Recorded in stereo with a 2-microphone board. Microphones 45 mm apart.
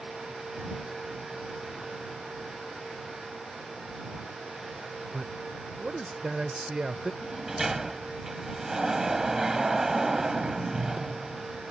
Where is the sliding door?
10° right (ahead or behind).